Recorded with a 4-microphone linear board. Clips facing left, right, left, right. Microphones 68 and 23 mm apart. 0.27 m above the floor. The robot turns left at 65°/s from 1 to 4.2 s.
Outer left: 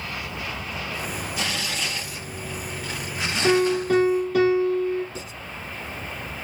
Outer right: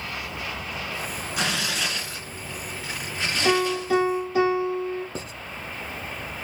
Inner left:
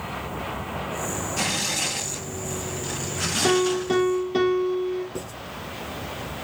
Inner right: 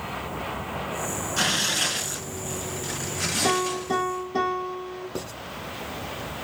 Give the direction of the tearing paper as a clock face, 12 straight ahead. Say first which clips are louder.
Outer right 4 dB, inner right 3 dB; 2 o'clock.